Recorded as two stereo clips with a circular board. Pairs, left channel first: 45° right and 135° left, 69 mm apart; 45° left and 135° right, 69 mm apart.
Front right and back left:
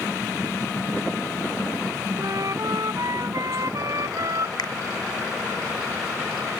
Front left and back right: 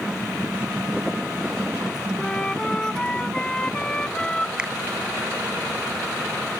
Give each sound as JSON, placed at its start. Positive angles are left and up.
{"t": 2.2, "sound": "a flute", "azimuth_deg": 120}
{"t": 4.6, "sound": "a finger snap", "azimuth_deg": -60}